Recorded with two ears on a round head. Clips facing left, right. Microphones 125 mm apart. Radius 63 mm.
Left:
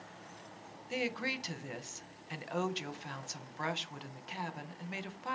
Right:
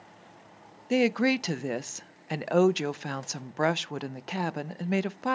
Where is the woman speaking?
65° right (ahead or behind), 0.5 m.